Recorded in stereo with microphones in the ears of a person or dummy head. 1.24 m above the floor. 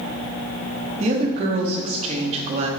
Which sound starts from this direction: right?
A woman speaking, at 1.0 s.